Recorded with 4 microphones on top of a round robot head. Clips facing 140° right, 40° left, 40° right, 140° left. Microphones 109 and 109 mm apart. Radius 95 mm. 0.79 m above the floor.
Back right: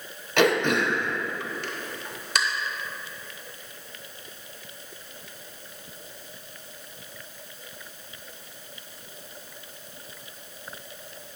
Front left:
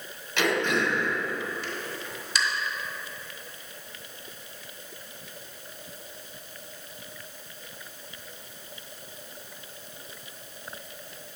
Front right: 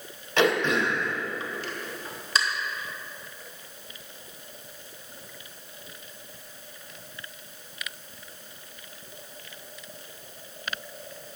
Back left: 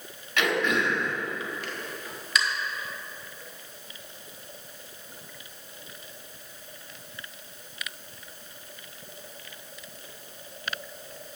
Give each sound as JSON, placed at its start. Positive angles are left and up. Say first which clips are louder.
{"t": 0.4, "sound": "throat clearing", "louder": "back right 4 dB, front right 3 dB", "azimuth_deg": -100, "distance_m": 0.9}